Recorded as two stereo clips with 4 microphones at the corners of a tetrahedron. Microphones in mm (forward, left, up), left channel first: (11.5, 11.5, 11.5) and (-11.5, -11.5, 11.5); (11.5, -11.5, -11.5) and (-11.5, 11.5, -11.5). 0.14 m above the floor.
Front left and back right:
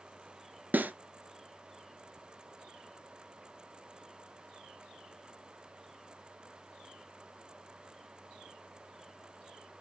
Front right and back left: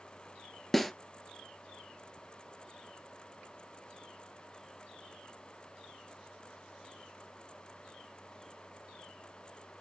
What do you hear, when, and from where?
0.7 s a snare drum: 130° right, 1.0 m